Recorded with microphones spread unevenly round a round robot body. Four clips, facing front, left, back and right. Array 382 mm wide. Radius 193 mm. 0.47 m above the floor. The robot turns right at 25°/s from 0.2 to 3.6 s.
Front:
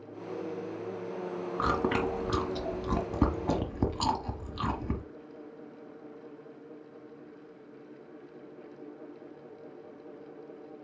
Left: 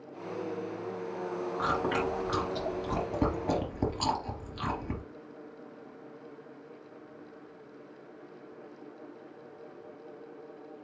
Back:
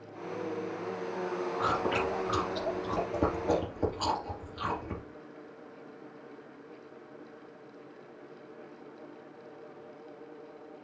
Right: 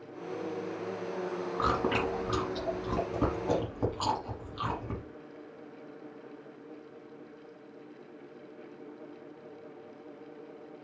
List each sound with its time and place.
1.6 s chewing: 30° right, 1.4 m; by 5.0 s 20° left, 1.4 m